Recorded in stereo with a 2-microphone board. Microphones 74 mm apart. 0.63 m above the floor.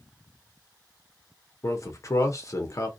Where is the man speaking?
45° left (ahead or behind), 0.7 m.